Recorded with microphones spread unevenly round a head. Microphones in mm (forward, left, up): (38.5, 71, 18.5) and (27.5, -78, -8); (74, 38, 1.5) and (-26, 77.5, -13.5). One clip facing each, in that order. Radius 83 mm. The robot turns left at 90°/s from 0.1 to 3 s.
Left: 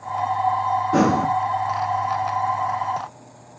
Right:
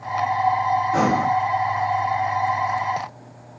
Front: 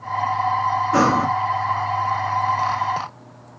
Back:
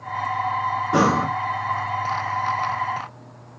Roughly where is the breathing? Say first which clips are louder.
Left 4 dB, front 1 dB; left.